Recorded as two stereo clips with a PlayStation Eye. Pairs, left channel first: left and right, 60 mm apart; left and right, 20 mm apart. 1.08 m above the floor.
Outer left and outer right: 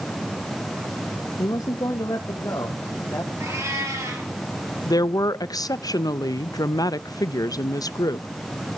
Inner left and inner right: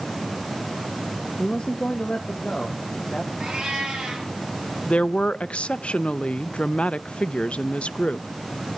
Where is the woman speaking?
80° left, 0.6 m.